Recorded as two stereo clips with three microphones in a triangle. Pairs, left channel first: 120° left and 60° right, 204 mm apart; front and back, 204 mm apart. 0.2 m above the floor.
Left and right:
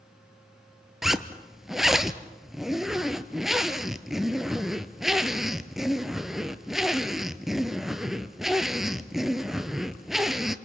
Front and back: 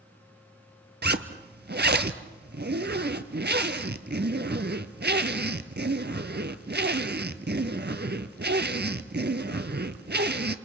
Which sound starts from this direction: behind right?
A zipper, at 1.0 s.